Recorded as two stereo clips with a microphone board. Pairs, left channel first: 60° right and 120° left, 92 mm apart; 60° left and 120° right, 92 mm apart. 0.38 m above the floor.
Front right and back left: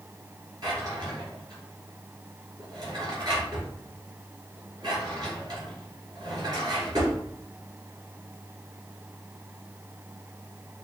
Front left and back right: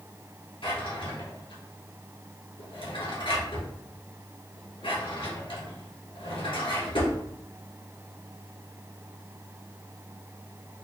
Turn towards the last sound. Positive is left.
turn(degrees=80)